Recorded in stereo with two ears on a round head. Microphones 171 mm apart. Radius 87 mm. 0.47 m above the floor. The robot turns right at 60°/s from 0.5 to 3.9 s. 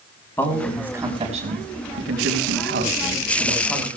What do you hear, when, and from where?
0.4 s a man speaking: 170° left, 4 m; by 3.9 s 10° left, 4 m